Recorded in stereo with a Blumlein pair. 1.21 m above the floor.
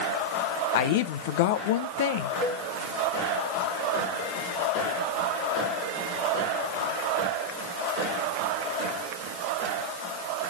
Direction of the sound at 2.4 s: 15° right.